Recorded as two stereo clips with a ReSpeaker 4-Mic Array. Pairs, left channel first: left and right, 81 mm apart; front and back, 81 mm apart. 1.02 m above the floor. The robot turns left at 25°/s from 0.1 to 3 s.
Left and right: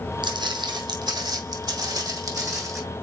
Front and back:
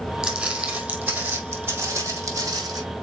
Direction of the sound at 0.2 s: 95° right.